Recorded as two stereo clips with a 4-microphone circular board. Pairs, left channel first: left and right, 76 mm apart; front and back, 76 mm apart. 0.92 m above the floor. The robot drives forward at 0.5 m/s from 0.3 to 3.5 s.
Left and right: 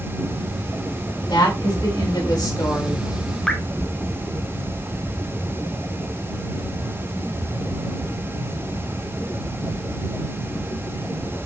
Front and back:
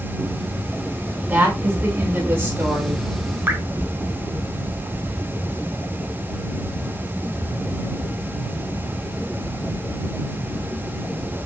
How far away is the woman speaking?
About 4 m.